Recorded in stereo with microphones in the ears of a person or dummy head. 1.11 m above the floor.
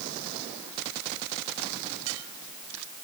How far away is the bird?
No bird in this recording.